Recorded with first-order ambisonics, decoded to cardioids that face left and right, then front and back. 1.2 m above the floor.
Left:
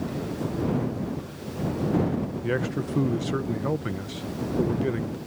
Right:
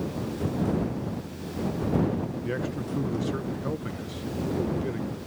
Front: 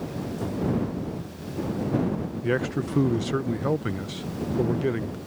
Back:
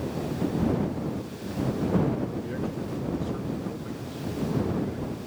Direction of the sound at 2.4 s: 20° left.